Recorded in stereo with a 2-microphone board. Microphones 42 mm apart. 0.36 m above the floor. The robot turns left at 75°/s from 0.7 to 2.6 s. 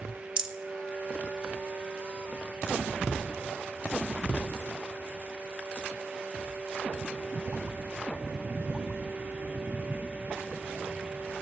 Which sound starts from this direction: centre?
A rattle, at 0.4 s.